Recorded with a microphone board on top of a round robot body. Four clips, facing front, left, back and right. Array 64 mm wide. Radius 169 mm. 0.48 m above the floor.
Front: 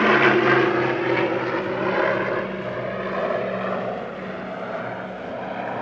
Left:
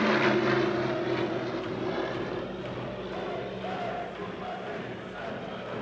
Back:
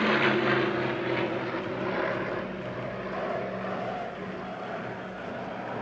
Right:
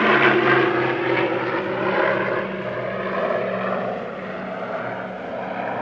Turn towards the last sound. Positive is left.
turn(degrees=-70)